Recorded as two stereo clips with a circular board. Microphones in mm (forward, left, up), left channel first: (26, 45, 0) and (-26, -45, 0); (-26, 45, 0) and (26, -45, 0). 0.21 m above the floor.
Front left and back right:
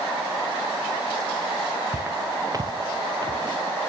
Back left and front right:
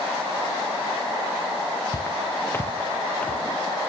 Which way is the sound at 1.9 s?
170° left.